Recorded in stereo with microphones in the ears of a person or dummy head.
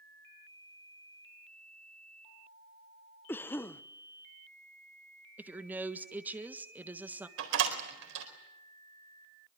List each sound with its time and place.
3.3 s a cough: 10° left (ahead or behind), 0.8 m
5.4 s a woman speaking: 10° right (ahead or behind), 1.5 m
7.4 s a door slam: 70° right (ahead or behind), 4 m